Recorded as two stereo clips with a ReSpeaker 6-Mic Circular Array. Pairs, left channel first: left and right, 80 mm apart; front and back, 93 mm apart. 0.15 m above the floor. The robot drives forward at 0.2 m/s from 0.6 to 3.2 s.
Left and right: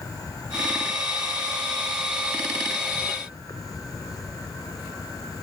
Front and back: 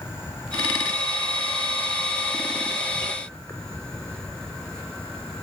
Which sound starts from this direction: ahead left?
An insect, at 0.0 s.